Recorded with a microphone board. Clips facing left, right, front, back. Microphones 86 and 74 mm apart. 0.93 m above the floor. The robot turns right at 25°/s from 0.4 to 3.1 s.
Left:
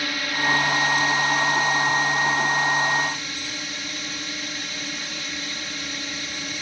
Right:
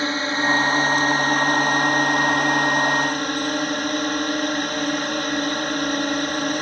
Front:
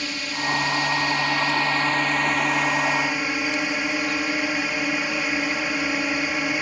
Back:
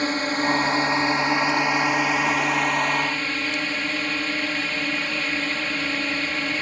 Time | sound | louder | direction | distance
0.0 | a drone | right 4 dB, back 5 dB | 145° right | ?